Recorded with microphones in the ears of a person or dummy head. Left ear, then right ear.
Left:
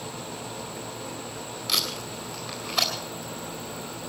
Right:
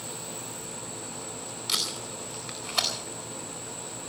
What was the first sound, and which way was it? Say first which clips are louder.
Tape being pulled: left 3 dB; 20° right (ahead or behind).